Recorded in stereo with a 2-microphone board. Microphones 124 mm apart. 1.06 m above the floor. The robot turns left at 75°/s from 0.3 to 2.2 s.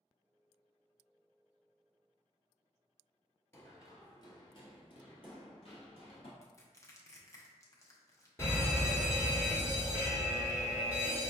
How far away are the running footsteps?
About 1.1 m.